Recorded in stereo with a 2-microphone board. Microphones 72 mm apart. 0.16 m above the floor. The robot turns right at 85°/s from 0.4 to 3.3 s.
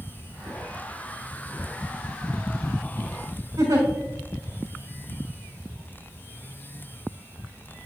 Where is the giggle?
60° right (ahead or behind), 3.5 m.